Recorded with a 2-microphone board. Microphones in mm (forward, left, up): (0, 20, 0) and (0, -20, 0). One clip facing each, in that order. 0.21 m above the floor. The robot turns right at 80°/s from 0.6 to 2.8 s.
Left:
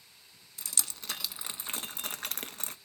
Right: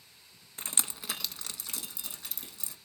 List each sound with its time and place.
0.6 s dripping: 40° right (ahead or behind), 0.6 m; by 2.8 s 45° left (ahead or behind), 0.6 m